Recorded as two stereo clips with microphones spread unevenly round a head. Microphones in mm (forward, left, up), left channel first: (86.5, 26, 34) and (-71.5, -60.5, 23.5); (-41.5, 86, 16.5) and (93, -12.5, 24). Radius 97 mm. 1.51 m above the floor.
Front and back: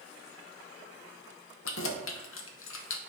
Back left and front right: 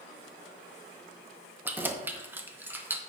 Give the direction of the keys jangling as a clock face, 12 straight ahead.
11 o'clock.